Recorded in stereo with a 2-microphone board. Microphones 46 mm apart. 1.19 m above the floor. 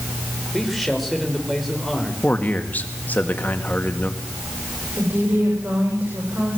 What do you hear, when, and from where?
0.5 s a man speaking: centre (ahead or behind), 4.5 m
2.2 s a man speaking: 40° left (ahead or behind), 2 m
5.0 s a woman speaking: 50° right (ahead or behind), 7 m